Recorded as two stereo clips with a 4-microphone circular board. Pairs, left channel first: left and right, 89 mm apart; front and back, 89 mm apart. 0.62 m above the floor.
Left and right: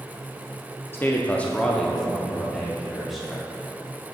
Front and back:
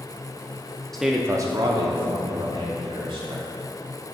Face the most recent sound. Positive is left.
turn(degrees=180)